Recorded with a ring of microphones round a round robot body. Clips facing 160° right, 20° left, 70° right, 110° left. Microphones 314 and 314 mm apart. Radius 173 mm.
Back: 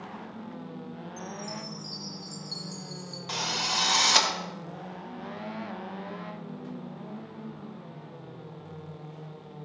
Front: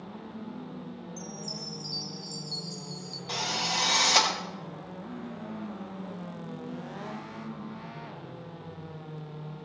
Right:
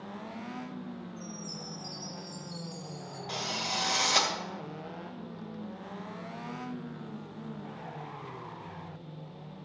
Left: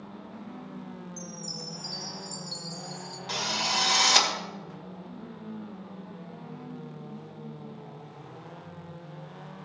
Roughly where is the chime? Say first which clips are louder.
Back 1 dB, left 1 dB; left.